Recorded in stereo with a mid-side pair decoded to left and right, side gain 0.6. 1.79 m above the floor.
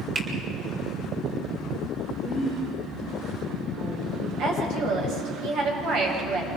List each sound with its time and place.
0.1 s a finger snap: 40° right, 5.5 m
2.1 s a woman speaking: 60° right, 8 m
4.4 s a woman speaking: 70° right, 9.5 m